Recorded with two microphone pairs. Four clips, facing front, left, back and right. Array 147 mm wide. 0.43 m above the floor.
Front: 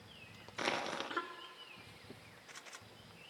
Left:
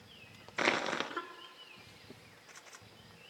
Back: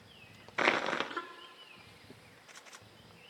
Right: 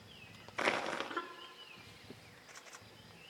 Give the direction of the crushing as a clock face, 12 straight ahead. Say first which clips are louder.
Left 3 dB, back 8 dB; 6 o'clock.